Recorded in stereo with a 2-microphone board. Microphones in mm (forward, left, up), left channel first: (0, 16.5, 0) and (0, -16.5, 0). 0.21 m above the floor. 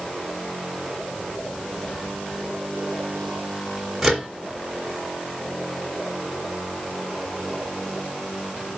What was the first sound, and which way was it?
A microwave, centre (ahead or behind).